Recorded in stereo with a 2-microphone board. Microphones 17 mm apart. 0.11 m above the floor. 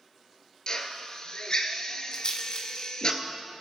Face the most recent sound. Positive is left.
turn(degrees=45)  # may be behind; listen again after turning